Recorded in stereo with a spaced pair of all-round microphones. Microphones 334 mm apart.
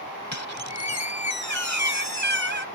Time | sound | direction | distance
0.3 | a squeak | 55° left (ahead or behind) | ?